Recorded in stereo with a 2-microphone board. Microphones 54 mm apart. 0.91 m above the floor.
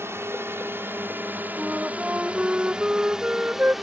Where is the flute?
25° right (ahead or behind).